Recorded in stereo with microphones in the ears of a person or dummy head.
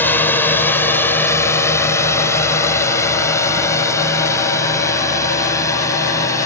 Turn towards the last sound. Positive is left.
turn(degrees=20)  # may be behind; listen again after turning